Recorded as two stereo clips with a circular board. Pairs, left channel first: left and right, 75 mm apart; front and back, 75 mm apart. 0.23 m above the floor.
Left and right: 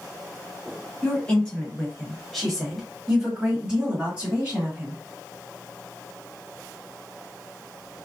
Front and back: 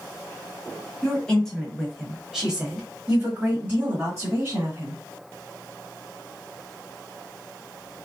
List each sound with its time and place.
1.0 s a woman speaking: 50° left, 1.6 m; by 5.0 s 150° right, 2 m